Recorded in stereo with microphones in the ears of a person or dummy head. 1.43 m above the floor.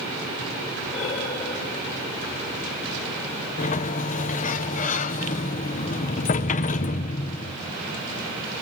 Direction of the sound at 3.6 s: 40° left (ahead or behind).